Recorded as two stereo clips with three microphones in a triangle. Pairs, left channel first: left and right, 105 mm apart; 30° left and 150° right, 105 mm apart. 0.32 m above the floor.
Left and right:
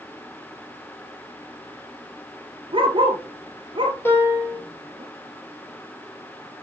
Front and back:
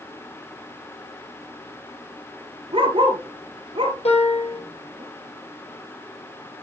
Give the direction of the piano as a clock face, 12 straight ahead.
11 o'clock.